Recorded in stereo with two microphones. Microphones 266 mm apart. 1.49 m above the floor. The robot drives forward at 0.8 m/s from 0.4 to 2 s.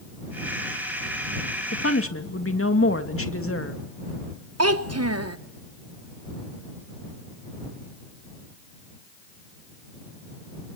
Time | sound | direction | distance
1.7 | a woman speaking | 60° left (ahead or behind) | 2 m
4.6 | a child speaking | 65° right (ahead or behind) | 0.9 m